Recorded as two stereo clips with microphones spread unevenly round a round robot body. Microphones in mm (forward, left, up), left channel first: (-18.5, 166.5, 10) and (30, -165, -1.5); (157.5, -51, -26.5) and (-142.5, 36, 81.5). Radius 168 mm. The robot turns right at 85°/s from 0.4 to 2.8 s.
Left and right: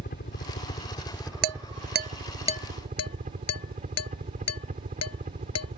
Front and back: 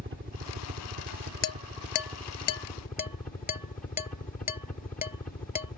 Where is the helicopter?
110° left; by 5.8 s 45° right.